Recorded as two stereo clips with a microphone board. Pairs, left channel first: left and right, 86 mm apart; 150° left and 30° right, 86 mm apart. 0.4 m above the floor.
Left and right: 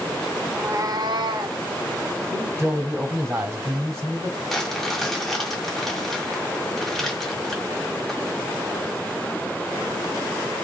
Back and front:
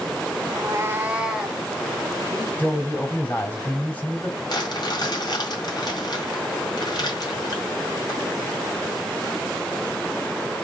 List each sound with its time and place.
0.5 s a cat meowing: 25° right, 0.5 m; by 1.6 s 120° right, 1.0 m
2.3 s a man speaking: 145° right, 2.5 m
4.5 s crumpling: 175° left, 1.8 m